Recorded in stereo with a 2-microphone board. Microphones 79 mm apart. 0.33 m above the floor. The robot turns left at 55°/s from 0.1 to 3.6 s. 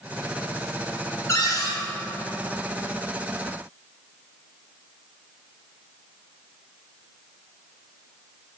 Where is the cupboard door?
35° left (ahead or behind), 2.5 m; by 1.8 s 50° left (ahead or behind), 2.5 m.